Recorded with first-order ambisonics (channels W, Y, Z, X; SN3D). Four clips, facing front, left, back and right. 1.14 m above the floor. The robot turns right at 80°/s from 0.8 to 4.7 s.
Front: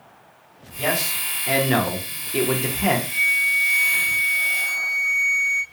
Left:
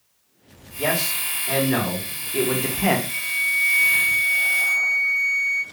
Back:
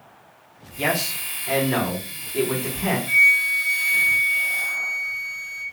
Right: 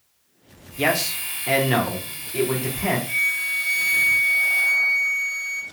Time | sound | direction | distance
0.8 | a man speaking | 110° right | 0.7 m
3.1 | a flute | 160° right | 0.5 m